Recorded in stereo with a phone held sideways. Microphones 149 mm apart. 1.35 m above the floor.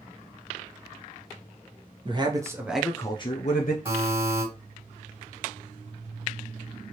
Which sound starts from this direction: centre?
A buzzer, at 3.9 s.